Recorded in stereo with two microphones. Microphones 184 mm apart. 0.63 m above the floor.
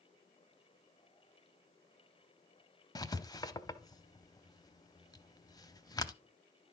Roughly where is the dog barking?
I don't hear a dog barking.